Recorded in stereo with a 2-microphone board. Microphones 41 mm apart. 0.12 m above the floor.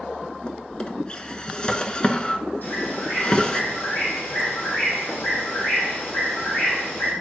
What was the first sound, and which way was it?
A drawer, 25° left (ahead or behind).